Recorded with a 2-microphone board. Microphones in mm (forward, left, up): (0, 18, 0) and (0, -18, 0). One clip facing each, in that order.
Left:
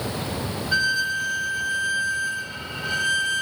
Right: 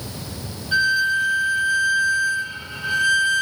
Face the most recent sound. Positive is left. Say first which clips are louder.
# right 5 dB
turn(degrees=-10)  # may be behind; listen again after turning